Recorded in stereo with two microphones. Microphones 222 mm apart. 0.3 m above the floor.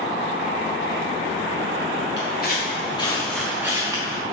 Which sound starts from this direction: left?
Footsteps, at 2.2 s.